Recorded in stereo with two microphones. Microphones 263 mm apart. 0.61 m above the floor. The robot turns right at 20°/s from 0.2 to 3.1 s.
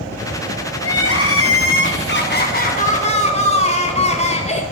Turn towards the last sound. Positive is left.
turn(degrees=155)